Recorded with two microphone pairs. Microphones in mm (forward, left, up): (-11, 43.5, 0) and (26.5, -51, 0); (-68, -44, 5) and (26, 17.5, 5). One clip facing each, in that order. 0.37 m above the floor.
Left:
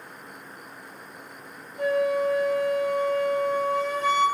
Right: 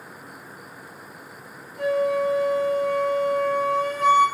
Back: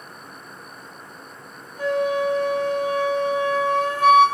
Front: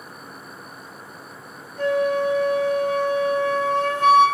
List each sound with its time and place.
1.8 s a flute: 70° right, 0.9 m